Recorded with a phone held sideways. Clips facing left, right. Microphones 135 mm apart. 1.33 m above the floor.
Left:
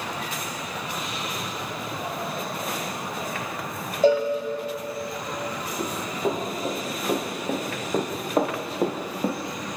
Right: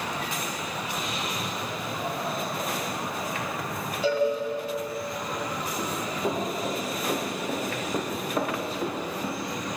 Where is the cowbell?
45° left (ahead or behind), 5 m.